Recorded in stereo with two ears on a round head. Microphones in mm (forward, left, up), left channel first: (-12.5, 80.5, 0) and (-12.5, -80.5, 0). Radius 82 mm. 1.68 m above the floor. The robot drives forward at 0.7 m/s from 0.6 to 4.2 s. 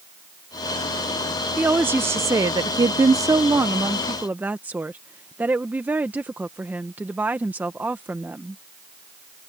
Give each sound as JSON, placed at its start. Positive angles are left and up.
{"t": 1.6, "sound": "a woman speaking", "side_deg": -10}